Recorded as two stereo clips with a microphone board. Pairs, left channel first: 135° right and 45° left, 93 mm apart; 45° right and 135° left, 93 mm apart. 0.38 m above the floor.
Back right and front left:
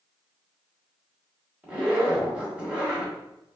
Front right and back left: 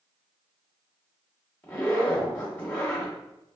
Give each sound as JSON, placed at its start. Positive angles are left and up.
{"t": 1.6, "sound": "a zipper", "azimuth_deg": -10, "distance_m": 1.1}